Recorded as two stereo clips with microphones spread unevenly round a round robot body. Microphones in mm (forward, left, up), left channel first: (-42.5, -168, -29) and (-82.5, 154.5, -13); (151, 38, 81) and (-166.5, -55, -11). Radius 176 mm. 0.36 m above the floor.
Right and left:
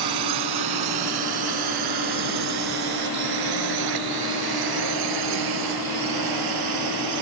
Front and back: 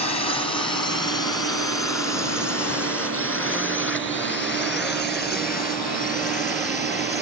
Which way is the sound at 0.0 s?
95° left.